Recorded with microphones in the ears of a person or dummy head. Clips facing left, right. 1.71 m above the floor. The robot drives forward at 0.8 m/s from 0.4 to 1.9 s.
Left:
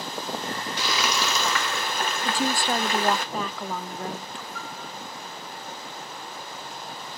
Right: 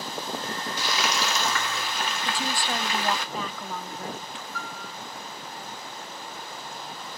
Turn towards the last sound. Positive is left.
turn(degrees=20)  # may be behind; listen again after turning